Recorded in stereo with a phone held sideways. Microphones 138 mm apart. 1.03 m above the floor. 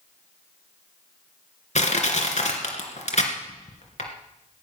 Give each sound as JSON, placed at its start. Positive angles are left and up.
{"t": 1.8, "sound": "crushing", "side_deg": 60, "distance_m": 2.5}